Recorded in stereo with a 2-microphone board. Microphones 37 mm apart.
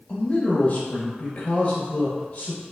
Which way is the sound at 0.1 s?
35° left (ahead or behind).